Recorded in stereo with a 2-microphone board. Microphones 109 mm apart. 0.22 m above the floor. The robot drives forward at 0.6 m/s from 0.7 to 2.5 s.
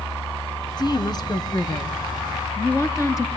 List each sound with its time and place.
0.8 s a woman speaking: 45° left (ahead or behind), 2.5 m; by 3.3 s 30° left (ahead or behind), 3 m